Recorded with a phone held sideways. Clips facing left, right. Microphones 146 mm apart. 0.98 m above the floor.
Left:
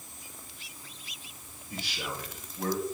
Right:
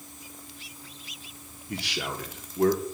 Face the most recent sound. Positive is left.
turn(degrees=-75)  # may be behind; listen again after turning